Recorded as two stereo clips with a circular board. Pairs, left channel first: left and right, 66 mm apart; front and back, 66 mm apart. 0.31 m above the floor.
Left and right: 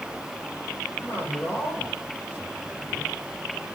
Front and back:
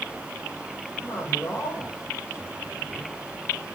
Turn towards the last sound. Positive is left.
turn(degrees=40)